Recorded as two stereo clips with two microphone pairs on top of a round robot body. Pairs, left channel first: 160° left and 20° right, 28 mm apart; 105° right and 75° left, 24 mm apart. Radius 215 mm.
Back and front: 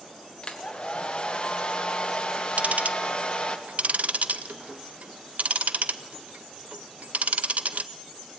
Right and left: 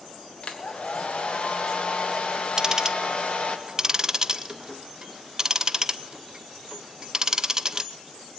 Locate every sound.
0.4 s a hair dryer: 145° right, 1.5 m
2.6 s ticking: 10° left, 0.8 m